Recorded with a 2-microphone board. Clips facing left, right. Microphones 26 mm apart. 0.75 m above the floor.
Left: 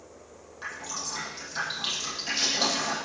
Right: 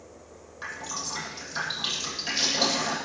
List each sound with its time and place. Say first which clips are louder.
0.6 s dripping: right 1 dB; centre (ahead or behind), 10 m